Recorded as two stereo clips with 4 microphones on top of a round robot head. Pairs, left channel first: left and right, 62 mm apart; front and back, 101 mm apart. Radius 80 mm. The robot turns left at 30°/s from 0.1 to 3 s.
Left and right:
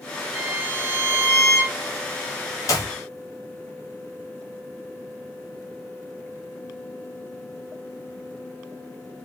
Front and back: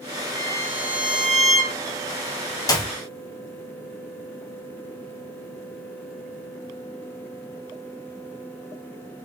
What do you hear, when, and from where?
0.3 s a violin: 125° left, 2 m; by 1.8 s 85° left, 2 m
2.7 s a clap: 55° left, 1.3 m; by 2.9 s 50° left, 1.3 m